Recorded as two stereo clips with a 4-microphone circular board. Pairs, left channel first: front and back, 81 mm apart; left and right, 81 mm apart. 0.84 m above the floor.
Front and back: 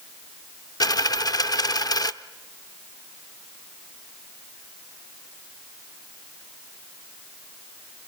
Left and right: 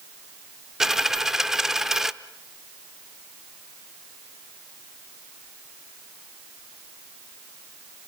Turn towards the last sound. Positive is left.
turn(degrees=-5)